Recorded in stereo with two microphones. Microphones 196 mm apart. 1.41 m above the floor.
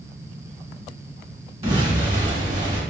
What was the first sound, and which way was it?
An explosion, 30° right (ahead or behind).